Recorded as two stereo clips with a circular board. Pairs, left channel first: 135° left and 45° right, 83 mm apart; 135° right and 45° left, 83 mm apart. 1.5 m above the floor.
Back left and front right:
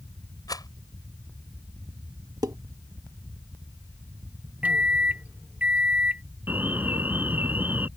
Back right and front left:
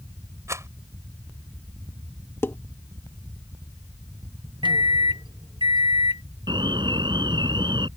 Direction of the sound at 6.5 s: 25° left.